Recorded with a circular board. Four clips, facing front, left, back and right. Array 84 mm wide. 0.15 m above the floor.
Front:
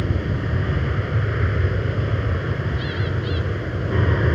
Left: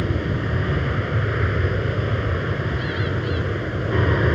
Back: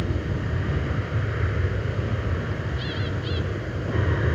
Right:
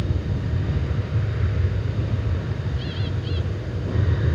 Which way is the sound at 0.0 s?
70° left.